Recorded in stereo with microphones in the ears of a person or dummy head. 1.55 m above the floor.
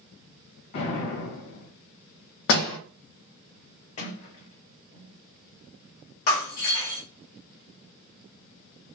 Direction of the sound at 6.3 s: 45° left (ahead or behind).